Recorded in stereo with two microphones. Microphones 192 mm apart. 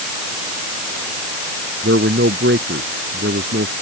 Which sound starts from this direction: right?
A man speaking, at 1.8 s.